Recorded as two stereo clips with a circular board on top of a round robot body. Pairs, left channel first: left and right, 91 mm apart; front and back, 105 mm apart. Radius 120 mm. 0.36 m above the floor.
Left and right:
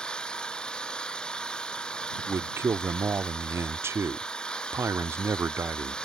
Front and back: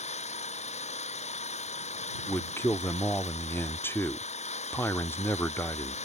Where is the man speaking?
50° right.